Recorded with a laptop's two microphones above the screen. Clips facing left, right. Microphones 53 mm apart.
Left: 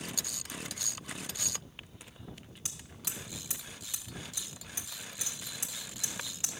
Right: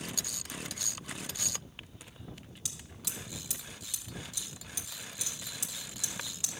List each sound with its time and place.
2.6 s hammering: 30° left (ahead or behind), 1.0 m